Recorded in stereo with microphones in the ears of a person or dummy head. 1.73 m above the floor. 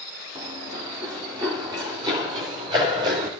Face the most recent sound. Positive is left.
turn(degrees=-20)  # may be behind; listen again after turning